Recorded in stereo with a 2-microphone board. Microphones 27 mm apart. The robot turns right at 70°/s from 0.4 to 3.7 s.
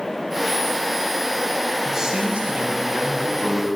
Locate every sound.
1.9 s a man speaking: 170° right, 6.5 m; by 3.7 s 45° right, 6.5 m